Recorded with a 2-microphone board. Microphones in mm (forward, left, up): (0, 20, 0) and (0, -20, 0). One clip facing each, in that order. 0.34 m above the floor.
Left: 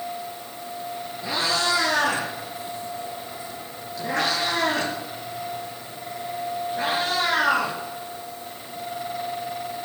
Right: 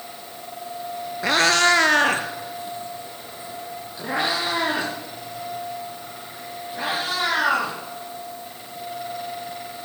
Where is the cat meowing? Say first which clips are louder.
Right 7 dB; 80° right, 1.3 m; by 7.7 s 10° right (ahead or behind), 7.5 m.